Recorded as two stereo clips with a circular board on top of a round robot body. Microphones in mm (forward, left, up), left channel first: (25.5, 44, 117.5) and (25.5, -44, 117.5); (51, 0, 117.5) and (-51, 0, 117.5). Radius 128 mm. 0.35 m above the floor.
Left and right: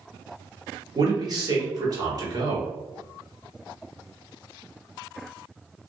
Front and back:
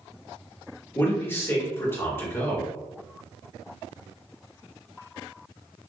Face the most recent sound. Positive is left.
turn(degrees=-65)